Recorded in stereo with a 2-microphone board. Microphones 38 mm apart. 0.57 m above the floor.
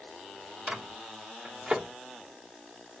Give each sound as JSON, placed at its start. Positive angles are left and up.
{"t": 0.7, "sound": "a microwave", "side_deg": -25, "distance_m": 0.7}